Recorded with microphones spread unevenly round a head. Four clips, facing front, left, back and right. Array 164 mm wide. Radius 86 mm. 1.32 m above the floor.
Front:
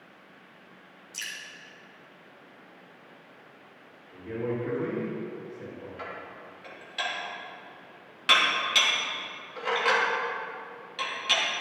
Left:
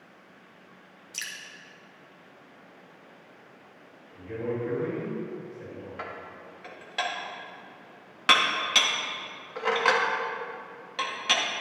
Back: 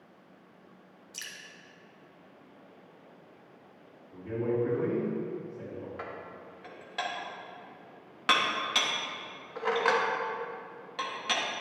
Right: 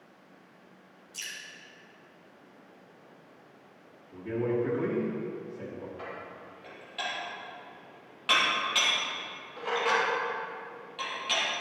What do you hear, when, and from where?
1.1 s dripping: 100° left, 1.2 m
4.1 s a man speaking: 110° right, 3 m
6.0 s dishes clattering: 90° left, 1.3 m